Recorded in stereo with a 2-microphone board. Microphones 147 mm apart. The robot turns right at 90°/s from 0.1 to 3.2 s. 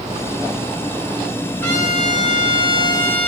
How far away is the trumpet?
About 1.8 m.